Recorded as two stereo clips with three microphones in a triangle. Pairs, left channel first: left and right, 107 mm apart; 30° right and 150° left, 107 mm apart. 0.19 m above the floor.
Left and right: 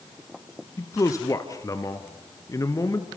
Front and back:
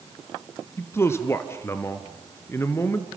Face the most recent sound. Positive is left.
turn(degrees=35)